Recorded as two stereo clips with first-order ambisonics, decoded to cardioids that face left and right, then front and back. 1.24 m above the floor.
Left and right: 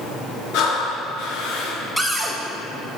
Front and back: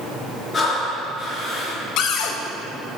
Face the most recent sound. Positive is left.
turn(degrees=0)